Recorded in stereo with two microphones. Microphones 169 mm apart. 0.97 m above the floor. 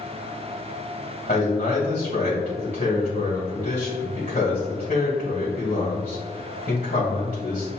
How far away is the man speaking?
About 2.0 m.